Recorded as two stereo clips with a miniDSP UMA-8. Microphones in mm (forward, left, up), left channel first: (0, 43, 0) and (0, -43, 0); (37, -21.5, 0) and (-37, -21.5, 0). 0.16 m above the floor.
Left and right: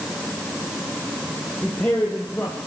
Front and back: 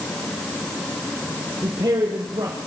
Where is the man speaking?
165° left, 4.5 m.